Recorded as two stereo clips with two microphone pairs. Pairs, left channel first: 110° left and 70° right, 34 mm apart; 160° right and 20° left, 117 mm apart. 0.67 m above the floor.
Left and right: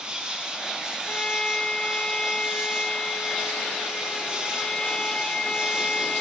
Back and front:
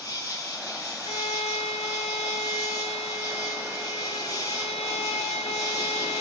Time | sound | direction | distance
0.0 | an insect | 120° right | 1.4 m
1.1 | a violin | 175° left | 0.7 m